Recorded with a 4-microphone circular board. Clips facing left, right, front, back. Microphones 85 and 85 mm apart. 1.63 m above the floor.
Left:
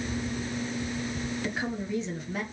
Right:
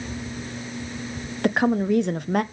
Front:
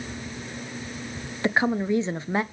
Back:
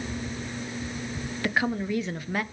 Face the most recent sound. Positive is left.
turn(degrees=-65)